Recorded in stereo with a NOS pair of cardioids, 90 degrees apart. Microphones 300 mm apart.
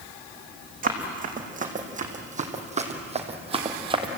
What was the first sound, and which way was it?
Running footsteps, 30° right.